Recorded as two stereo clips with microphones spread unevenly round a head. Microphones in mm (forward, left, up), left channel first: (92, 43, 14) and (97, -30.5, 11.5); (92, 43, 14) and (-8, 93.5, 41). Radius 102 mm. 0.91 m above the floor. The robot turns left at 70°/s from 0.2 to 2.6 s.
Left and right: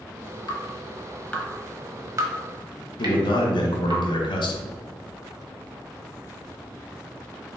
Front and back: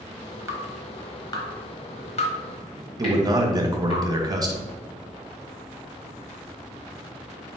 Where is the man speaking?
95° left, 1.0 m.